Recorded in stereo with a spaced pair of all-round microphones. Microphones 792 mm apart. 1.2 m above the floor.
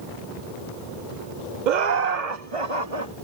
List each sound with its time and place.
1.7 s laughter: 70° right (ahead or behind); by 3.1 s 35° right (ahead or behind)